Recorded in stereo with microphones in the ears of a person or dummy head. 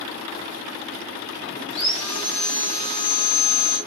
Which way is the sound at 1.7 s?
40° left (ahead or behind).